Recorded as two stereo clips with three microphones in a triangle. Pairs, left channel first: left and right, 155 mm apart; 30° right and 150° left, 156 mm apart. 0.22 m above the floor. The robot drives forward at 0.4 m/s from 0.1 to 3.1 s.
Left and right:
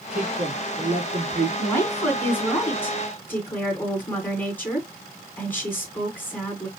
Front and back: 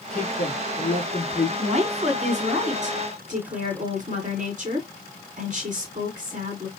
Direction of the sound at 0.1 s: 55° right.